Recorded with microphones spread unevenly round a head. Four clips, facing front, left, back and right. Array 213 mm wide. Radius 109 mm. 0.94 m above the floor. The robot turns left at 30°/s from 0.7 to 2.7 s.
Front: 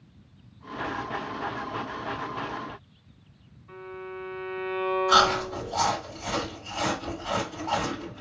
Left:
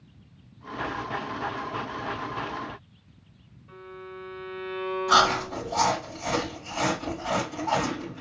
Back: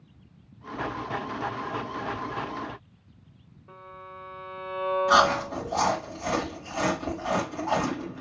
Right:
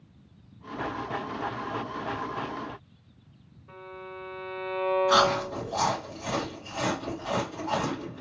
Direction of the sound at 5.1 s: 165° left.